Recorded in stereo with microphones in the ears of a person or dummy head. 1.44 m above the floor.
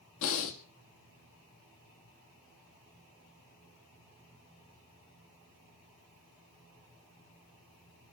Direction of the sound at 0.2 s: 70° left (ahead or behind).